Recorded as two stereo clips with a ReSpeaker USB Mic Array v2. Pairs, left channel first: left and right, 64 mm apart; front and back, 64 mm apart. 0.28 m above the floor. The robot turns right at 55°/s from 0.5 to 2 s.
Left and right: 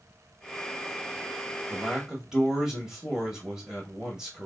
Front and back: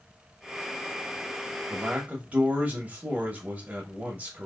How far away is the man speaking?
About 0.9 m.